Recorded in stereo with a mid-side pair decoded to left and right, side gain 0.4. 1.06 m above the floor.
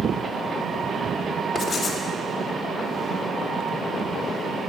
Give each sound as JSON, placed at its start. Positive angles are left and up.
{"t": 1.6, "sound": "writing", "azimuth_deg": 35, "distance_m": 2.5}